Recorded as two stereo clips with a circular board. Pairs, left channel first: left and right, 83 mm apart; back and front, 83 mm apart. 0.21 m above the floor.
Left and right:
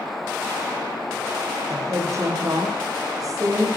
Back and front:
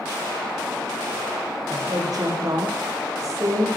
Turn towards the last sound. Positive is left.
turn(degrees=-50)